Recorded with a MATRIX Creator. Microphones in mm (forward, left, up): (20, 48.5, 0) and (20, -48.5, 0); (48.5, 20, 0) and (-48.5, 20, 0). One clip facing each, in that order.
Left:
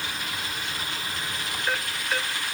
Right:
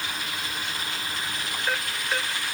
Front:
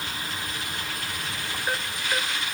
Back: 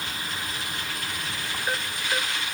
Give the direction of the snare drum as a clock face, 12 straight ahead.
I don't hear a snare drum.